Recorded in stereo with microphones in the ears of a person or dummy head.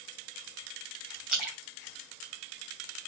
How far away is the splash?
About 3 m.